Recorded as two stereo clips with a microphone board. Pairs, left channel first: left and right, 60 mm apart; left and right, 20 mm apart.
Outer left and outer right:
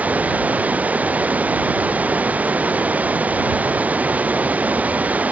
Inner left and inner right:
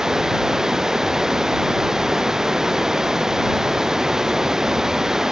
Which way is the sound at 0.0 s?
25° right (ahead or behind).